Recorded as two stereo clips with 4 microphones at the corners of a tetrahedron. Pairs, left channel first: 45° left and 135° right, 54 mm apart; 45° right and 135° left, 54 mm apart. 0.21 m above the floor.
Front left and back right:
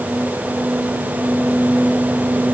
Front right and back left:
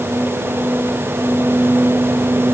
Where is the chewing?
No chewing in this recording.